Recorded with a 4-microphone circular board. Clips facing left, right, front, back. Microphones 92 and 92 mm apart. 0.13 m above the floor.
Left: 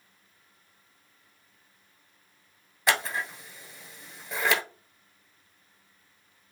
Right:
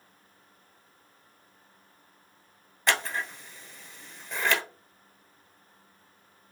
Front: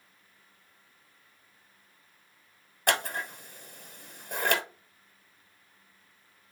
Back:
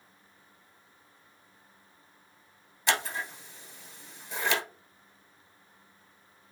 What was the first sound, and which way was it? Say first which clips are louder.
Scissors: left 1 dB, front 1 dB; 5° left.